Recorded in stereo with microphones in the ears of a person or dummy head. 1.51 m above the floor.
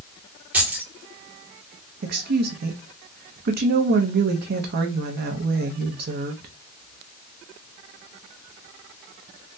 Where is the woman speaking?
50° right (ahead or behind), 0.6 m.